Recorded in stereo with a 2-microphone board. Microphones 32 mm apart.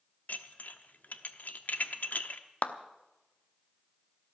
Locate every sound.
0.3 s dishes clattering: 65° left (ahead or behind), 0.9 m
2.6 s a clap: 50° left (ahead or behind), 0.8 m